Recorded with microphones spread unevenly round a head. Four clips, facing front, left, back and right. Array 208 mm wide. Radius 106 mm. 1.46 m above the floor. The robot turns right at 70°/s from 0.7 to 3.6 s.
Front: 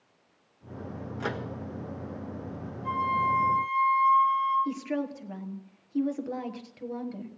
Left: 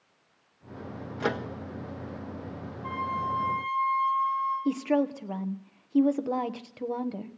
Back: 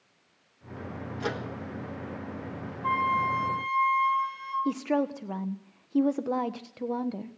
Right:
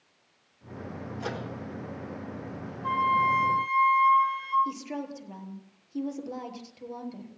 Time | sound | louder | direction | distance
1.2 | a microwave | left 6 dB, back 1 dB | 85° left | 1.4 m
2.8 | a flute | right 7 dB, back 1 dB | straight behind | 7 m
4.7 | a woman speaking | left 9 dB, back 4 dB | 140° left | 1.3 m